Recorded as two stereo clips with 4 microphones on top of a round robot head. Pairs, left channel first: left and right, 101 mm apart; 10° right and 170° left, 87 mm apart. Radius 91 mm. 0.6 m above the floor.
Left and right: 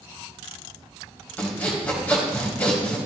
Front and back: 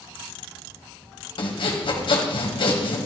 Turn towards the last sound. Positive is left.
turn(degrees=15)